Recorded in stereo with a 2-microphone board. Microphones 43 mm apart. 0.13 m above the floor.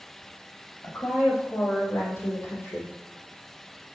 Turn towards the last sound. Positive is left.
turn(degrees=70)  # may be behind; listen again after turning